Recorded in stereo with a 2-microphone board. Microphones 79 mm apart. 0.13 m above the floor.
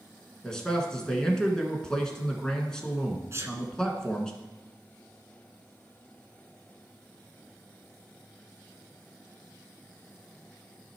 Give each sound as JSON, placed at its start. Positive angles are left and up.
{"t": 0.4, "sound": "a man speaking", "side_deg": 10, "distance_m": 1.7}
{"t": 3.3, "sound": "a sneeze", "side_deg": -35, "distance_m": 1.6}